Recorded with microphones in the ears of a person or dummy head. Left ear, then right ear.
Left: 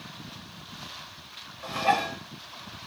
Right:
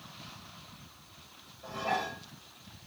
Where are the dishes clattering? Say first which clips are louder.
Left 8 dB; 60° left (ahead or behind), 0.9 m.